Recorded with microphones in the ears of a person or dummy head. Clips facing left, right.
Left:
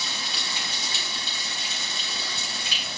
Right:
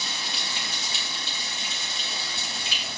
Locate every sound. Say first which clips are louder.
0.0 s running water: even; 75° left (ahead or behind), 3 m